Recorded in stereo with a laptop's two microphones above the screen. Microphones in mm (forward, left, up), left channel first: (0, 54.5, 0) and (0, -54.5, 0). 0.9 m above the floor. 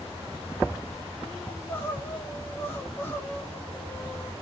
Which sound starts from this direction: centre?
Crying, at 1.5 s.